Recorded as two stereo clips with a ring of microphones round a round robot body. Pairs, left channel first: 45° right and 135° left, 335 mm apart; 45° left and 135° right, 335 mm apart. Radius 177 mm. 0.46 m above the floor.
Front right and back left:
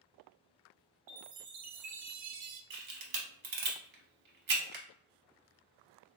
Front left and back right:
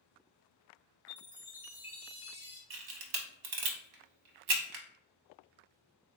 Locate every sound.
1.1 s a chime: 140° left, 0.6 m
2.7 s a camera shutter: 165° right, 0.6 m